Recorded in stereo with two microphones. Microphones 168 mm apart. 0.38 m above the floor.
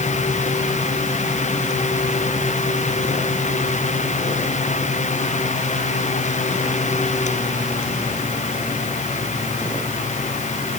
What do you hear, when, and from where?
Only background noise.